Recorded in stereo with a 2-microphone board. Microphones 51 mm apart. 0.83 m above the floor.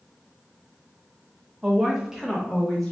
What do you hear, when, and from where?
1.6 s a woman speaking: 20° right (ahead or behind), 0.5 m; by 2.9 s 5° left (ahead or behind), 0.7 m